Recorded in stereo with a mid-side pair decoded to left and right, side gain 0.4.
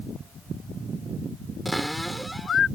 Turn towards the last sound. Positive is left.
turn(degrees=-5)